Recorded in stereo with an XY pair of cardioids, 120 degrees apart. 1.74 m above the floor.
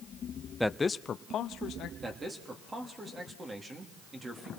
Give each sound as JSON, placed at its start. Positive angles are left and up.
{"t": 0.6, "sound": "a man speaking", "azimuth_deg": 0, "distance_m": 0.6}
{"t": 2.0, "sound": "a man speaking", "azimuth_deg": -25, "distance_m": 3.0}